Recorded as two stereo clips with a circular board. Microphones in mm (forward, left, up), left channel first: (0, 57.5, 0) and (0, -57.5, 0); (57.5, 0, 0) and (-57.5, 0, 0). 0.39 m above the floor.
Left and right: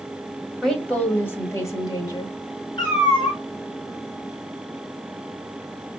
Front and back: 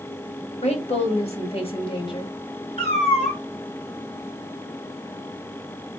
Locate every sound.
0.6 s a woman speaking: 5° left, 1.7 m; by 2.4 s 45° left, 1.6 m
2.8 s a cat meowing: 40° left, 3 m